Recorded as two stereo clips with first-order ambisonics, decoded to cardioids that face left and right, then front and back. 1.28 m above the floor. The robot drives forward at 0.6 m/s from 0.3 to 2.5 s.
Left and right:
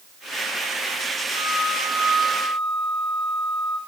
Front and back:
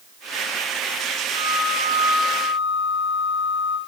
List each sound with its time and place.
1.3 s a flute: 165° right, 1.1 m; by 3.8 s 170° right, 1.7 m